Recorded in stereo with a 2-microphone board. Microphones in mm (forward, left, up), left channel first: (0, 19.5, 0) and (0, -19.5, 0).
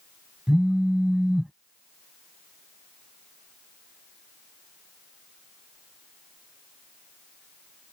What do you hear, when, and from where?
0.5 s a phone buzzing: 20° right (ahead or behind)